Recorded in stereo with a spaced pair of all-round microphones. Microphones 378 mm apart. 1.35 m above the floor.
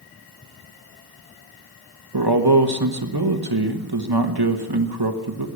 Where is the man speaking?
80° right, 1.4 m.